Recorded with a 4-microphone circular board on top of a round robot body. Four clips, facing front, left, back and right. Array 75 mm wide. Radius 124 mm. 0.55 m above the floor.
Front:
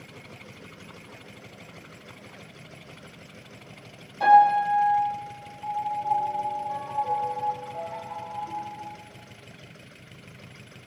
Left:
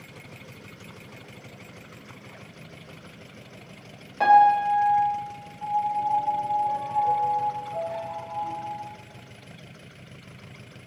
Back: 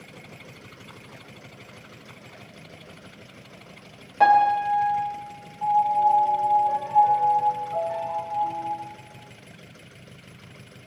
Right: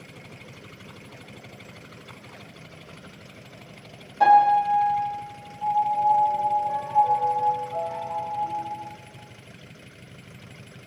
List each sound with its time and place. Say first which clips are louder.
4.2 s a piano: even, front 1 dB; 150° left, 3 m
5.6 s a piano: right 4 dB, back 9 dB; 170° left, 2.5 m